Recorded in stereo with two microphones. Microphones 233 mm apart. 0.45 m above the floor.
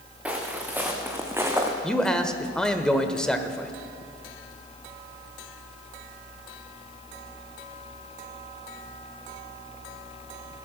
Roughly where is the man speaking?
Centre.